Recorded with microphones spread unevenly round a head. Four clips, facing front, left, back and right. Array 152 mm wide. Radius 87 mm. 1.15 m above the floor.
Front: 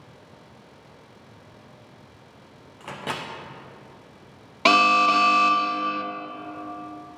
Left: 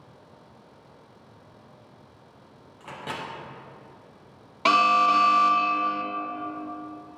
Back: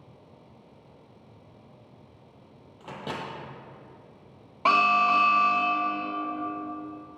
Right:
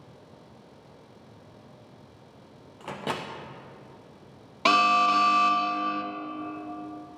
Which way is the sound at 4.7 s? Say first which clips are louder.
Left 2 dB, front 3 dB; 15° right.